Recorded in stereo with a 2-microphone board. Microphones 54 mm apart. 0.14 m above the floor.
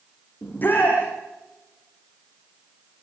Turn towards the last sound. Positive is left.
turn(degrees=35)  # may be behind; listen again after turning